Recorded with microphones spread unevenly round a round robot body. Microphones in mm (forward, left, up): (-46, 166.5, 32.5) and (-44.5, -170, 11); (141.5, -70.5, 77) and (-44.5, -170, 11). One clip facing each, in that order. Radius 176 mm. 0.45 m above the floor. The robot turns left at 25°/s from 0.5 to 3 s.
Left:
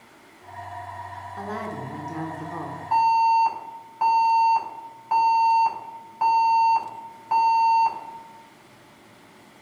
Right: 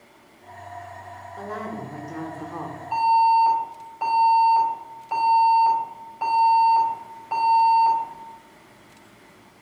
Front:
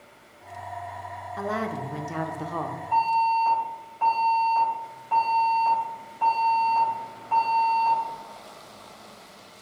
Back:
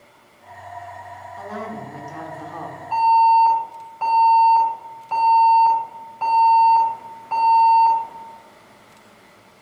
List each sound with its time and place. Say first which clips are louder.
1.4 s a woman speaking: even, front 3 dB; 30° left, 1.0 m; by 2.8 s 10° right, 1.0 m
2.9 s an alarm: right 1 dB, back 9 dB; 160° left, 4 m; by 8.0 s 155° left, 4 m